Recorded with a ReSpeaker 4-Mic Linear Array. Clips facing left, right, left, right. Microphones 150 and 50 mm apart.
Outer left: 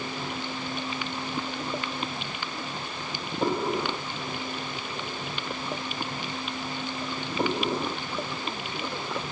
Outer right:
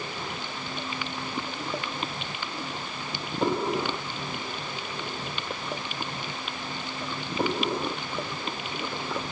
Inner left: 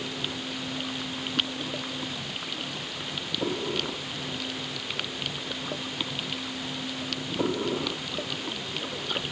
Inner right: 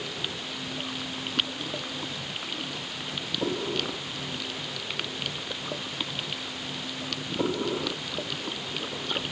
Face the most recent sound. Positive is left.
No sound to turn to.